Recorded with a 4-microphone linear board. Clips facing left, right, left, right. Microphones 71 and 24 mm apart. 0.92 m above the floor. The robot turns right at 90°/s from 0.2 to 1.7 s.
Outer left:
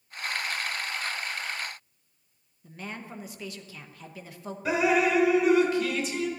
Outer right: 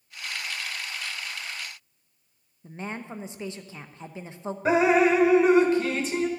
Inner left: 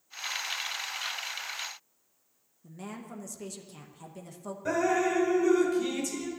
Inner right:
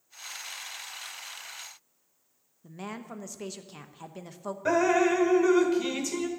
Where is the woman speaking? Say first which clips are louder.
Outer right 4 dB, inner right 3 dB; 25° right (ahead or behind), 0.9 m.